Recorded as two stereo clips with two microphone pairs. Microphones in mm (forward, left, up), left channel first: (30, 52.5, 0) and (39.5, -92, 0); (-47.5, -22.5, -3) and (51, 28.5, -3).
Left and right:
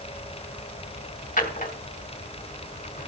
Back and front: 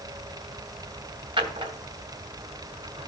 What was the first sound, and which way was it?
A drawer, 70° left.